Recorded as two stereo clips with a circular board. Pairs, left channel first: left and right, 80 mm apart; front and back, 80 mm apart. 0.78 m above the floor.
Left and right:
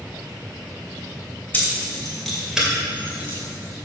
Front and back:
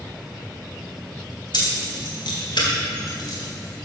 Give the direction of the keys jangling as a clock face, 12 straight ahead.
11 o'clock.